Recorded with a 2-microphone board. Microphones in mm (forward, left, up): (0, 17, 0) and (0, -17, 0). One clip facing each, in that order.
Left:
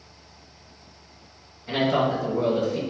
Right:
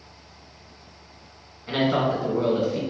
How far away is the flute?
I don't hear a flute.